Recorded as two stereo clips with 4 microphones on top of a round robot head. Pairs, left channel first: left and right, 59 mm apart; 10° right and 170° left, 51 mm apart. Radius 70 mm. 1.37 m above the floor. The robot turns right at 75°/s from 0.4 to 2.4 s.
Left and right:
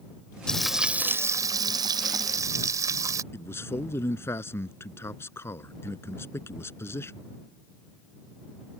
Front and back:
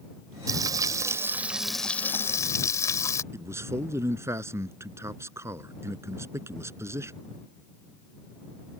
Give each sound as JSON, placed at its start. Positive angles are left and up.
{"t": 0.5, "sound": "frying", "azimuth_deg": 170}
{"t": 3.3, "sound": "a man speaking", "azimuth_deg": 140}